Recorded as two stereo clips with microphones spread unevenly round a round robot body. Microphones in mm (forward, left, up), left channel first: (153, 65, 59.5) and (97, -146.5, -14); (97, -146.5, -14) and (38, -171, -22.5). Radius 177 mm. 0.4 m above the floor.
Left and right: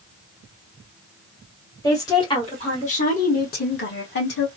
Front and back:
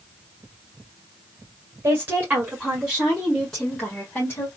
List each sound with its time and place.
1.8 s a woman speaking: 170° left, 1.7 m; by 4.5 s 75° left, 1.5 m